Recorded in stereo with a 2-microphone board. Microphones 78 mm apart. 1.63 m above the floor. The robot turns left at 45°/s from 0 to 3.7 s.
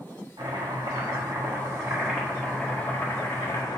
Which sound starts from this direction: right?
Chopping, at 0.4 s.